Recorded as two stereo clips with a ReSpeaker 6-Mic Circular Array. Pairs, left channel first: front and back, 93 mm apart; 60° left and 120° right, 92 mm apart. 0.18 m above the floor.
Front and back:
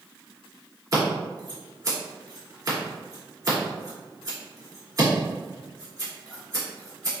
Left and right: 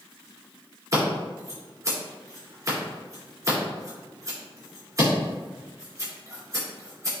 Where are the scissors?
155° right, 2.0 m.